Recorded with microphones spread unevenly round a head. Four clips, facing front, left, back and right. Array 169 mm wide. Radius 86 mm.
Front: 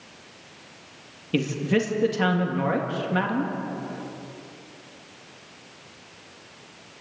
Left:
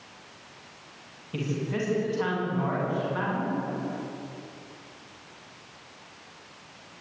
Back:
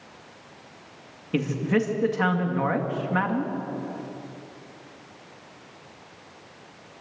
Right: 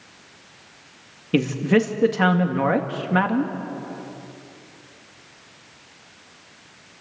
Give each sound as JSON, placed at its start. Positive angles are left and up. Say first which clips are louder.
{"t": 1.3, "sound": "a man speaking", "louder": "right 11 dB, even", "azimuth_deg": -85, "distance_m": 2.5}